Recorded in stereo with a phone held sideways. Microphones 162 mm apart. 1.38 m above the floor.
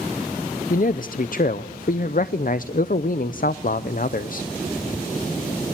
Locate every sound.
0.7 s a man speaking: 60° left (ahead or behind), 0.6 m